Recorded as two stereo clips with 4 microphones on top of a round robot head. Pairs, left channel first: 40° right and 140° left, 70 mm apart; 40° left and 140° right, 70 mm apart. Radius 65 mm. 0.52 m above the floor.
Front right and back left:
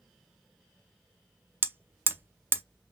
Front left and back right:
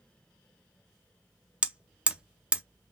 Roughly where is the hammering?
Behind.